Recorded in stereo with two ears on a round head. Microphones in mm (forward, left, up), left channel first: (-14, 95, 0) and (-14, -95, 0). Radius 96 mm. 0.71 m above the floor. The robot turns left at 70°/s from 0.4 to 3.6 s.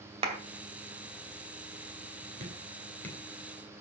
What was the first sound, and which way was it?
A clap, 30° right (ahead or behind).